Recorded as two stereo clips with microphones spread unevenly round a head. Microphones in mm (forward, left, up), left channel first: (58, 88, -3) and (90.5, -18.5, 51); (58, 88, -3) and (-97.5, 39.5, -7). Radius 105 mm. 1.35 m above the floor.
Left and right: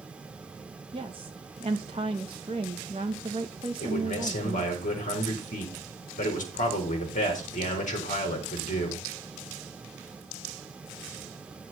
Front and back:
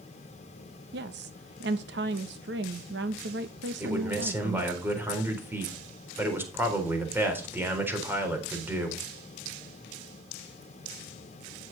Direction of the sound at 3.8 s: 120° left.